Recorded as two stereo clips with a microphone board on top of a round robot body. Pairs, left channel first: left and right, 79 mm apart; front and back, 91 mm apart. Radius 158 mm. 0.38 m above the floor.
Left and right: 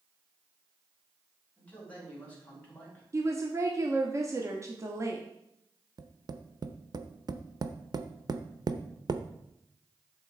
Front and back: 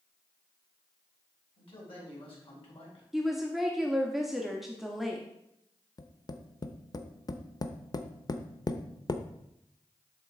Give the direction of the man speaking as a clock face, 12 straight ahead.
11 o'clock.